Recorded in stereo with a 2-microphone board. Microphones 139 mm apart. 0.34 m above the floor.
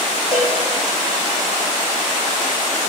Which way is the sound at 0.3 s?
45° left (ahead or behind).